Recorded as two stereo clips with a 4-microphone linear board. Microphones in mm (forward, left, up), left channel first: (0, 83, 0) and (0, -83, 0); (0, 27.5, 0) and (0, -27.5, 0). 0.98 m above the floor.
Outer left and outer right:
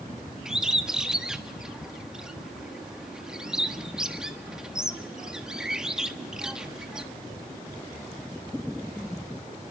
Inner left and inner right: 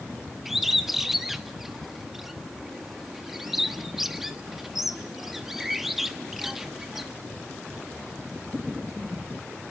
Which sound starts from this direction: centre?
A bird, at 0.5 s.